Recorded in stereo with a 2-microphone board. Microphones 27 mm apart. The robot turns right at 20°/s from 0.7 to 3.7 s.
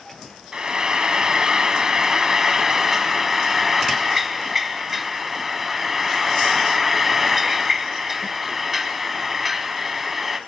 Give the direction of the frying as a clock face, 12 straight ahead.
3 o'clock.